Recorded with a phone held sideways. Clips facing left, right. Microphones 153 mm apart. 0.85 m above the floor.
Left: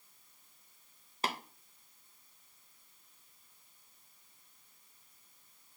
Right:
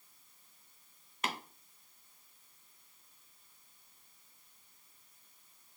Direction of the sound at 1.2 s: 30° left (ahead or behind).